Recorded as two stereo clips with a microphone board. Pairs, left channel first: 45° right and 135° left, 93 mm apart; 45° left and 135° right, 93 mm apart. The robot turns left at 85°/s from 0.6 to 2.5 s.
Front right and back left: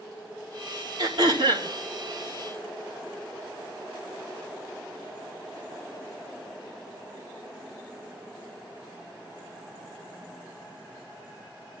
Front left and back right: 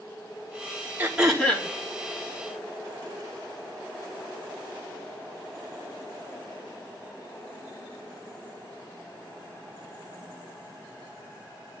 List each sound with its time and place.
1.0 s throat clearing: 160° left, 4 m; by 1.7 s 100° left, 4 m